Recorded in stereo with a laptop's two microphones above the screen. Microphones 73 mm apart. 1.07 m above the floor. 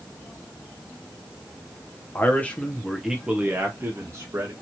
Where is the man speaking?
30° left (ahead or behind), 0.8 m; by 4.5 s 50° right (ahead or behind), 1.1 m.